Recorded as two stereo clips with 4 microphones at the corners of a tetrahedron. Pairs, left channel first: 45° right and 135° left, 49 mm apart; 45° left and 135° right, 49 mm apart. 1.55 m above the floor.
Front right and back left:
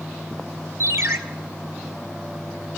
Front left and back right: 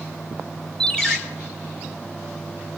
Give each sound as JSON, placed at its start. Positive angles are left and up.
{"t": 0.8, "sound": "a ringtone", "azimuth_deg": 120, "distance_m": 2.0}